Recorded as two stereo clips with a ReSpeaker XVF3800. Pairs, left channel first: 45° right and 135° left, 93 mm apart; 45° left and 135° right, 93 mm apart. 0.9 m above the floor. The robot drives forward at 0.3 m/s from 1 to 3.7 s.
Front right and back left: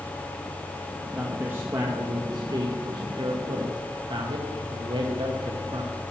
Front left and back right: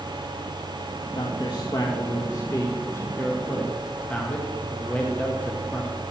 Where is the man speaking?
65° left, 0.9 m; by 6.0 s 120° left, 1.0 m.